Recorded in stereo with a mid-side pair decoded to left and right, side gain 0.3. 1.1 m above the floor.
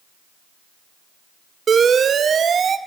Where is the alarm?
70° right, 0.6 m.